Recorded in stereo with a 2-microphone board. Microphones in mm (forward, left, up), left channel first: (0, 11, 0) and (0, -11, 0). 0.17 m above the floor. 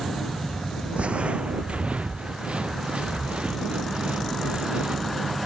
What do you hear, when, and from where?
1.0 s footsteps: 75° right (ahead or behind); by 5.3 s 70° right (ahead or behind)